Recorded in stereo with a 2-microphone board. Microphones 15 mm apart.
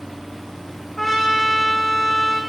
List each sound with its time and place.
1.0 s a trumpet: 10° left (ahead or behind), 5 m